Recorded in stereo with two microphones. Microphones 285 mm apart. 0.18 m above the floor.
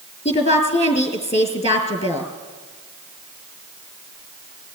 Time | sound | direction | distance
0.2 | a woman speaking | 20° left (ahead or behind) | 3 m